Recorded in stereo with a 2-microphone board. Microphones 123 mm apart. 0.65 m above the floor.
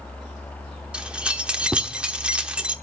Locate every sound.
0.9 s keys jangling: 10° right (ahead or behind), 0.9 m